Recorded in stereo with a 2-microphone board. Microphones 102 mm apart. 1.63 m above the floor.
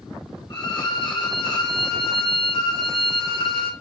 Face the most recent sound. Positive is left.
turn(degrees=45)  # may be behind; listen again after turning